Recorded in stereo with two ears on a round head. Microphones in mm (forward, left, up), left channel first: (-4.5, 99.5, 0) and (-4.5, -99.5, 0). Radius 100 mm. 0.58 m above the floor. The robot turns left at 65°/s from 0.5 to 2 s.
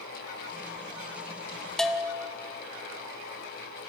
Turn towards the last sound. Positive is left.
turn(degrees=-5)  # may be behind; listen again after turning